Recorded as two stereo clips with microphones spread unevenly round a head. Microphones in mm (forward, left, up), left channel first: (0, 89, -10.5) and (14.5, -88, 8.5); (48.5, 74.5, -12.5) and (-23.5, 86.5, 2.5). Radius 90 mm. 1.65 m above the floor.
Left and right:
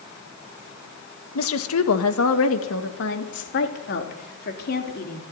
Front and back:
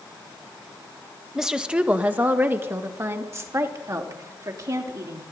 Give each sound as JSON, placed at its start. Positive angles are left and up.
{"t": 1.4, "sound": "a woman speaking", "azimuth_deg": 90, "distance_m": 1.7}